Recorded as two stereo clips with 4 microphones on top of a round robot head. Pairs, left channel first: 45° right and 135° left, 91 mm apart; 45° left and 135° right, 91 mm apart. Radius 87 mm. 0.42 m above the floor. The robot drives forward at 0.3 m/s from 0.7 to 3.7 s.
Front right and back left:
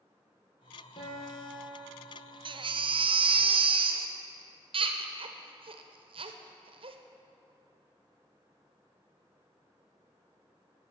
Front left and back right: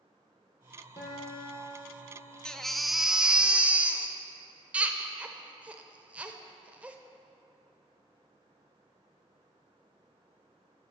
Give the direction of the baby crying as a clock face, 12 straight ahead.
8 o'clock.